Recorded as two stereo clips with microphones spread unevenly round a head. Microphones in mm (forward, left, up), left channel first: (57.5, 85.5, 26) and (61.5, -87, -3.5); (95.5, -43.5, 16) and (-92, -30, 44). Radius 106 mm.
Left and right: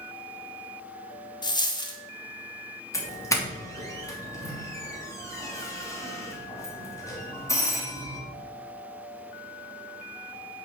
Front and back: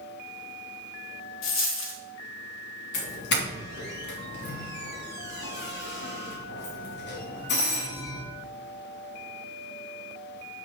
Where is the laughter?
I don't hear laughter.